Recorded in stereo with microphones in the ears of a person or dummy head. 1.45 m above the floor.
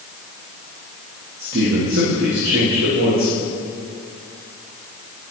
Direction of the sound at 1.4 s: 70° right (ahead or behind).